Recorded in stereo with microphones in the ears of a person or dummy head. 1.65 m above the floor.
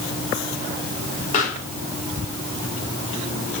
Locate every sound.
1.3 s a pop: 45° left (ahead or behind), 3 m